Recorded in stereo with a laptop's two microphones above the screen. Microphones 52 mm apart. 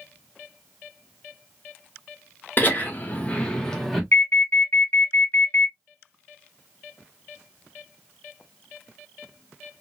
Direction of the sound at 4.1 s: 50° left (ahead or behind).